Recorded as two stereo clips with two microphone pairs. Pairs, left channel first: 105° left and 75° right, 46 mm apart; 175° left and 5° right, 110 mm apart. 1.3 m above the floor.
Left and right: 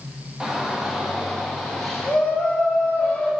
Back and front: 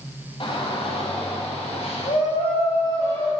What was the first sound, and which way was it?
A shout, 150° right.